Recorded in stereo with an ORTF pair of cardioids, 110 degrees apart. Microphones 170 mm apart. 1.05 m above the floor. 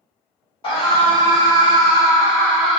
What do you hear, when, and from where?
0.6 s a scream: 35° left, 1.6 m; by 2.8 s straight ahead, 0.6 m